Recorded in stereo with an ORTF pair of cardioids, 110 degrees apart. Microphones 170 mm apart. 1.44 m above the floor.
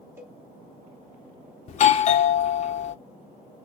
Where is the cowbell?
15° right, 2 m.